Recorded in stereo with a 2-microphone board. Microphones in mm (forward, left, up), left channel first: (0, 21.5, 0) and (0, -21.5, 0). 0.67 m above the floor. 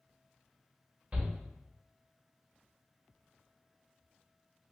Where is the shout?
30° right (ahead or behind), 1.3 m.